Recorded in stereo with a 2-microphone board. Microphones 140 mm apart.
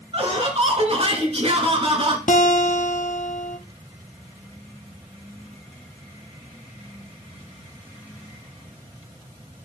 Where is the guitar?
65° left (ahead or behind), 1.2 m.